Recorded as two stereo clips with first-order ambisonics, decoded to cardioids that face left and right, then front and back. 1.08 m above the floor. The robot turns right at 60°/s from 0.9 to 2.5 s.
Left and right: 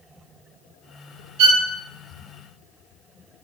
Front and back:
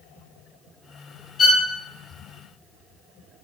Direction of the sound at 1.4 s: 65° right.